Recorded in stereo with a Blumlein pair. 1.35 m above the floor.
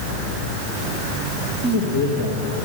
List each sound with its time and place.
1.6 s a man speaking: 35° left, 2 m